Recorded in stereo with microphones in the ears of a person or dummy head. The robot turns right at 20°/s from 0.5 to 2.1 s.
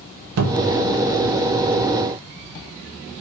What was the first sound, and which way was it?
A cupboard door, 85° right.